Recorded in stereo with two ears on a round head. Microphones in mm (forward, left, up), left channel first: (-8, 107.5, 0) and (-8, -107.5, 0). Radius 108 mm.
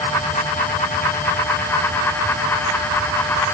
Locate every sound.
Only background noise.